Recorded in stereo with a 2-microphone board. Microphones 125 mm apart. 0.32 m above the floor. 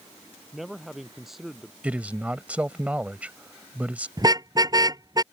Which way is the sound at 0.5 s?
Centre (ahead or behind).